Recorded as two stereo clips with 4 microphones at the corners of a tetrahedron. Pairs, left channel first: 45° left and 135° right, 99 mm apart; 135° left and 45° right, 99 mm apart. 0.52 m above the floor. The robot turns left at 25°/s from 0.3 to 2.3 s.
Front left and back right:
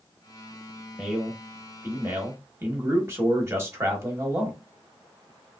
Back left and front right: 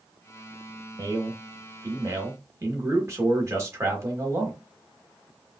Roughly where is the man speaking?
Ahead right.